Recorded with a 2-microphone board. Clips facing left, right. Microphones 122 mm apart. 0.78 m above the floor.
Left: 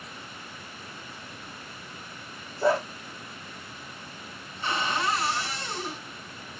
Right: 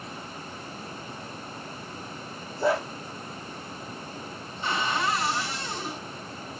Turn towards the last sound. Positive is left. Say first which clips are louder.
# right 1 dB
turn(degrees=-25)  # may be behind; listen again after turning